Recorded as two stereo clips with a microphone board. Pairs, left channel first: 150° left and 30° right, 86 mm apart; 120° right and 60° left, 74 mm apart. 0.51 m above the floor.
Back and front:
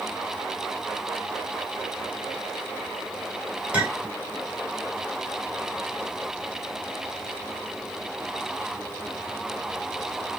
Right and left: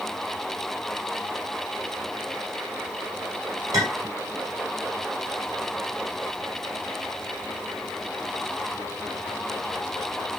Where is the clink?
40° left, 1.0 m.